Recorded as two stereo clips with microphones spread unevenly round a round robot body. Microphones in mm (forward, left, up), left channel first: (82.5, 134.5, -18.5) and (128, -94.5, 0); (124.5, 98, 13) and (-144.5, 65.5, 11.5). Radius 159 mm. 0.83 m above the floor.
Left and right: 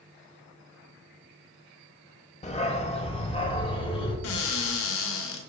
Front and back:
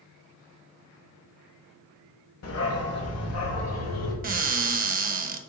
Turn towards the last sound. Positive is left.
turn(degrees=130)